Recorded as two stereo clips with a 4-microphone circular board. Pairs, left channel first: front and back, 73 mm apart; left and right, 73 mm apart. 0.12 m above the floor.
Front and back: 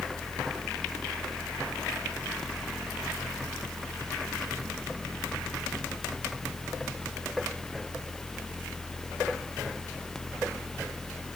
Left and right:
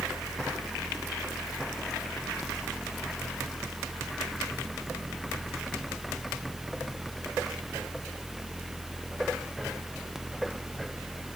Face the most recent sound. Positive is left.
No sound to turn to.